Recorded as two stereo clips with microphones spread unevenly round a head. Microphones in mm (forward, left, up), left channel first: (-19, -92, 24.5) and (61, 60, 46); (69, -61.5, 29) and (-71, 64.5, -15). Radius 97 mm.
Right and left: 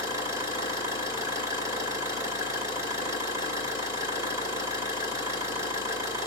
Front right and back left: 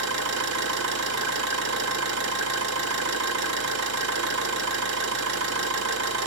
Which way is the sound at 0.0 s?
135° left.